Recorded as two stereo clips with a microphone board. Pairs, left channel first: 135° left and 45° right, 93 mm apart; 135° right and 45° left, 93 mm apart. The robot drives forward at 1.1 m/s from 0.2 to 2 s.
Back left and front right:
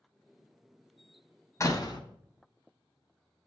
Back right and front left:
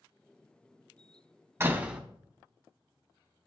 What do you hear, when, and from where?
1.6 s a door slam: 95° left, 0.9 m; by 2.0 s 130° left, 1.0 m